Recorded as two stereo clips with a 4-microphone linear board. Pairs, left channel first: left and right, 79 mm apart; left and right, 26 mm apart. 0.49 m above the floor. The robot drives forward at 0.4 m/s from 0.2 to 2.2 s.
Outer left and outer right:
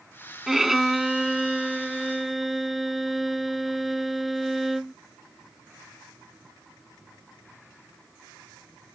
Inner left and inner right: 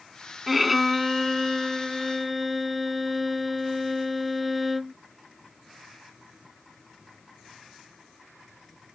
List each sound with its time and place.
0.5 s a violin: 5° right (ahead or behind); by 5.0 s centre (ahead or behind)